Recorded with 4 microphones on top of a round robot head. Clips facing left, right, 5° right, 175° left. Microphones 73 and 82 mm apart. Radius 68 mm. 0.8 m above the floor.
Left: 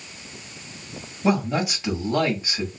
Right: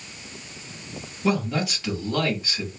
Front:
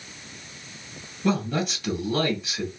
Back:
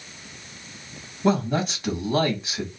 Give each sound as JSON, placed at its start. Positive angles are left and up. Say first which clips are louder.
{"t": 1.2, "sound": "a man speaking", "louder": "left 2 dB, back 3 dB", "azimuth_deg": 150, "distance_m": 1.4}